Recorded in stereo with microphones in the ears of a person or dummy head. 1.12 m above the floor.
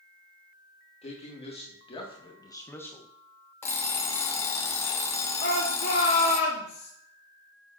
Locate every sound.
1.0 s a man speaking: 30° left (ahead or behind), 1.7 m; by 3.1 s centre (ahead or behind), 0.6 m
3.6 s an alarm clock: 20° left (ahead or behind), 0.8 m
5.4 s a shout: 50° left (ahead or behind), 1.1 m